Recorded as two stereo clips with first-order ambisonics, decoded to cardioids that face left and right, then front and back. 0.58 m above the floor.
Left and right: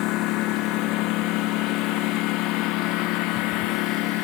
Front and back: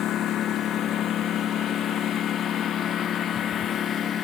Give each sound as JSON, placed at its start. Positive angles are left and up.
{"t": 0.0, "sound": "a lawn mower", "azimuth_deg": 55}